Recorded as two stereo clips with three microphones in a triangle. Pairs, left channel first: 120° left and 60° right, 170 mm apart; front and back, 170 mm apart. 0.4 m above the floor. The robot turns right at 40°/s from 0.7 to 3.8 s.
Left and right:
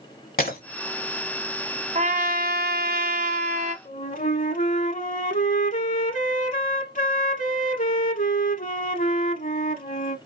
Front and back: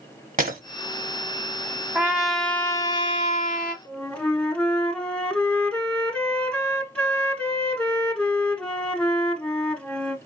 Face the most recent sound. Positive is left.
turn(degrees=85)